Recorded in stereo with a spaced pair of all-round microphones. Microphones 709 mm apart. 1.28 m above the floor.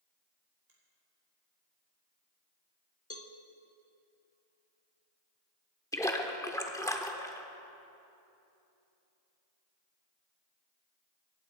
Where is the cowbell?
20° left (ahead or behind), 0.8 m.